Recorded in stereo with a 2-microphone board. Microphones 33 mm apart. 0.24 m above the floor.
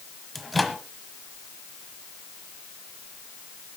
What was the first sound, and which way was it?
A microwave, centre (ahead or behind).